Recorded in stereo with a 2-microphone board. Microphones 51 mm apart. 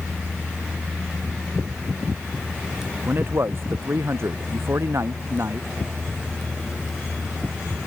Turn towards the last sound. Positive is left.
turn(degrees=-60)  # may be behind; listen again after turning